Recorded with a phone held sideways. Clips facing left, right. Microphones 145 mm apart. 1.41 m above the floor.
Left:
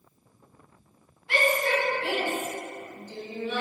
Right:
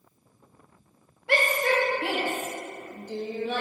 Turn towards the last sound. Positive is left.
turn(degrees=-50)  # may be behind; listen again after turning